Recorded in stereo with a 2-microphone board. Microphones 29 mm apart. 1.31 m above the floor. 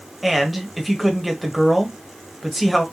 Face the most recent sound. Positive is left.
turn(degrees=0)  # may be behind; listen again after turning